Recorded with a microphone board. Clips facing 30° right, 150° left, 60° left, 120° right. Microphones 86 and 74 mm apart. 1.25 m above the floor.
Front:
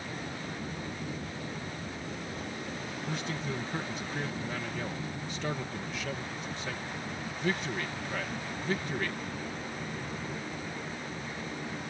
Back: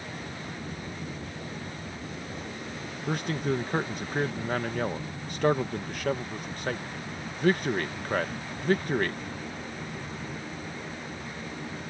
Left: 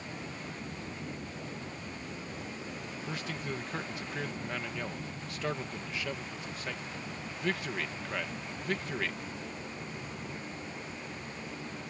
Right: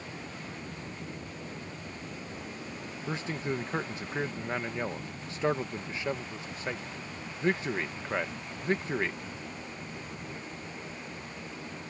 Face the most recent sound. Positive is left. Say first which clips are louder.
# back 9 dB, right 6 dB
turn(degrees=180)